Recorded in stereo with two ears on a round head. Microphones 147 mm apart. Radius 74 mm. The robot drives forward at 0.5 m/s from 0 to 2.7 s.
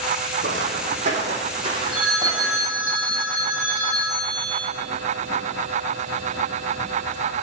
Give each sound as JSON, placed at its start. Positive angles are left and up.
{"t": 0.4, "sound": "footsteps", "side_deg": -55, "distance_m": 3.5}
{"t": 1.9, "sound": "a phone ringing", "side_deg": -5, "distance_m": 6.0}